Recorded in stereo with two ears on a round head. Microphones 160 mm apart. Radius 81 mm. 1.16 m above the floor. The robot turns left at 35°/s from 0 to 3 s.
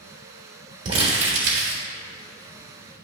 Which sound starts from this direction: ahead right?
Crumpling, at 0.8 s.